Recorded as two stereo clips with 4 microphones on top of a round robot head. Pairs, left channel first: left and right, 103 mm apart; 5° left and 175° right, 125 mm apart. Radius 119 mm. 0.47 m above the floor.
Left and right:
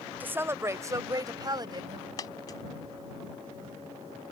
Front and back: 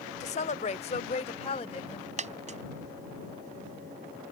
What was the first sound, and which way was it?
A woman speaking, 20° right.